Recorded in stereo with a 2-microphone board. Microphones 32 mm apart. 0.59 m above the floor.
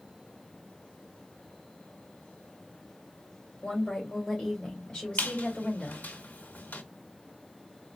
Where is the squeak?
65° left (ahead or behind), 1.1 m.